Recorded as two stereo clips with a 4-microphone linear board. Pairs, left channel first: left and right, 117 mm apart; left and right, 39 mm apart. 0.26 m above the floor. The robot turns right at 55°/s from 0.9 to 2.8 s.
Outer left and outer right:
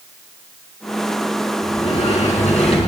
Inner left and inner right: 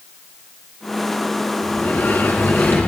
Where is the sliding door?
55° left, 4 m; by 2.9 s 120° left, 4 m.